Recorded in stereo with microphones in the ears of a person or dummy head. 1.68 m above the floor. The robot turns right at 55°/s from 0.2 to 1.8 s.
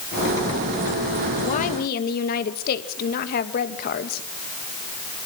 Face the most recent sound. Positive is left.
turn(degrees=50)  # may be behind; listen again after turning